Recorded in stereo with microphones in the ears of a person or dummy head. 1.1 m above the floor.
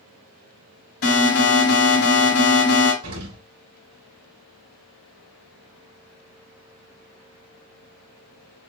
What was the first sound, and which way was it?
An alarm, 70° left (ahead or behind).